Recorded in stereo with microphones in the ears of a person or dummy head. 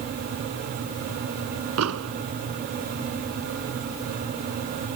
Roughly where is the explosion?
Right.